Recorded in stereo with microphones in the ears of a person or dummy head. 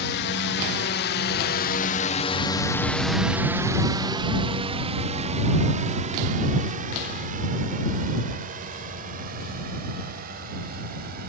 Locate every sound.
0.0 s a drone: 60° left (ahead or behind); by 11.3 s 45° right (ahead or behind)